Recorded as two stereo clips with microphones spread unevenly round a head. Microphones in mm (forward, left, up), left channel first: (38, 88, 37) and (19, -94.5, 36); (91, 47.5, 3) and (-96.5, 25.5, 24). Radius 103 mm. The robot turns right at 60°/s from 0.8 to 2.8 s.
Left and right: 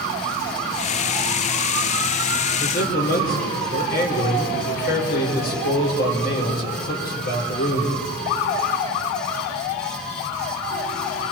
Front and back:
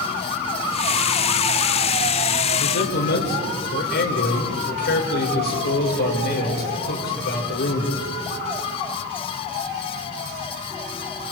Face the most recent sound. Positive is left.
turn(degrees=45)